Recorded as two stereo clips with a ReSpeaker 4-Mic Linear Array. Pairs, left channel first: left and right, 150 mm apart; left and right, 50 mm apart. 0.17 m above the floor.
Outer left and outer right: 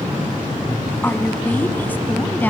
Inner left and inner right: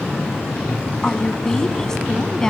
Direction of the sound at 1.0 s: 15° left (ahead or behind).